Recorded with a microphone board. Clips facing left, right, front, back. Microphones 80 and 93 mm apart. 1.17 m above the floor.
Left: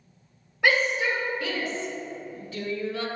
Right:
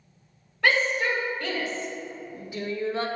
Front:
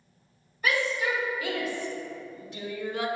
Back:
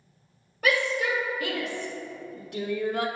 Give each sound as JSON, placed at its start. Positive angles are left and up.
{"t": 0.6, "sound": "a shout", "azimuth_deg": 165, "distance_m": 3.0}